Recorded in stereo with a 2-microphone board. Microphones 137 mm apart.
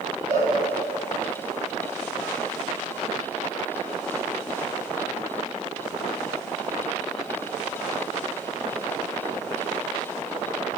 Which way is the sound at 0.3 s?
60° right (ahead or behind).